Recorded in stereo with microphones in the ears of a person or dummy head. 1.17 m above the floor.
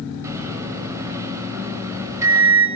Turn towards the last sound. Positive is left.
turn(degrees=-20)  # may be behind; listen again after turning